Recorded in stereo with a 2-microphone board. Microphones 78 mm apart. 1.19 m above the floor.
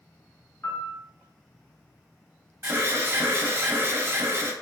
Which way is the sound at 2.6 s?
35° right (ahead or behind).